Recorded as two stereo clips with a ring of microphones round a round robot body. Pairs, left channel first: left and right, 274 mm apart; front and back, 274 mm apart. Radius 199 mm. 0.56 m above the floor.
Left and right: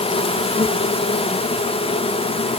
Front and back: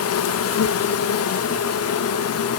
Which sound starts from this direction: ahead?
An insect, at 0.0 s.